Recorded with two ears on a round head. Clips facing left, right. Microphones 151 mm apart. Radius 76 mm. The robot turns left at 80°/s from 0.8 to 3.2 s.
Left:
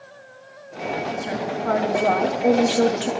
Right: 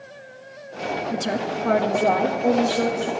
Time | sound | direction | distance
1.1 | a woman speaking | 85° right | 1.3 m